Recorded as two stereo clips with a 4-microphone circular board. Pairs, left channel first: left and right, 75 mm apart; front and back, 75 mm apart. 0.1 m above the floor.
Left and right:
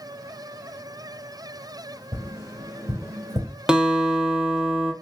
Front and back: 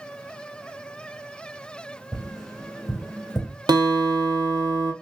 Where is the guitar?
170° right, 0.6 m.